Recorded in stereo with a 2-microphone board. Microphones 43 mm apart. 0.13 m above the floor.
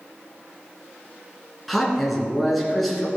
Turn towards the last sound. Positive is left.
turn(degrees=5)  # may be behind; listen again after turning